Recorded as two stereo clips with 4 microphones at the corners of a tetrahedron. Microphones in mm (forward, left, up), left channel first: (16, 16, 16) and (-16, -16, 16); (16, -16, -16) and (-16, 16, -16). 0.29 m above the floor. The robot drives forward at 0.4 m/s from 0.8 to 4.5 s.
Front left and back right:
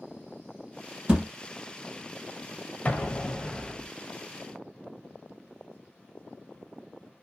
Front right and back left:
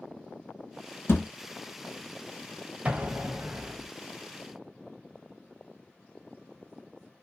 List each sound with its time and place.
1.1 s a thud: 65° right, 1.0 m
2.9 s an explosion: 85° left, 0.6 m; by 3.9 s 130° left, 0.7 m